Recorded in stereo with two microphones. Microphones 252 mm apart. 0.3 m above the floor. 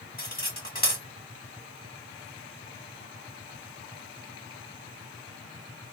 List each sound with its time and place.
0.2 s cutlery clinking: 35° left (ahead or behind), 1.2 m